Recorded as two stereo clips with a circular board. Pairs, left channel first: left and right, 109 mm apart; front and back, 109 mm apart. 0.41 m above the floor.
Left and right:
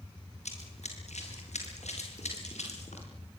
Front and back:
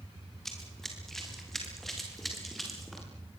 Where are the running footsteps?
85° left, 6 m; by 3.1 s 90° left, 8.5 m.